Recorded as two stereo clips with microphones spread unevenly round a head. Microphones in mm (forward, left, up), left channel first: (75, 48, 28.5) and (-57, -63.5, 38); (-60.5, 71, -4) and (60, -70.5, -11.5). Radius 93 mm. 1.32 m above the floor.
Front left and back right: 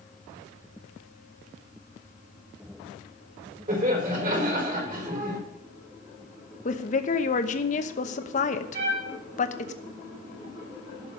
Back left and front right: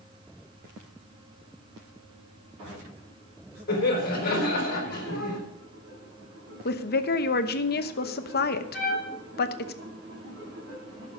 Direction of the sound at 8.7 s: Straight behind.